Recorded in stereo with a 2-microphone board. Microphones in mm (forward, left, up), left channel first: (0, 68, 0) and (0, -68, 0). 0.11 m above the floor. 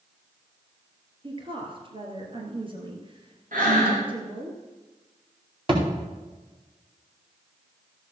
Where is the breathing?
80° right, 5 m.